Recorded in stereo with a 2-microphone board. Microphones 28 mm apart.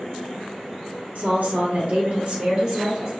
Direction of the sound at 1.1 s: 65° right (ahead or behind).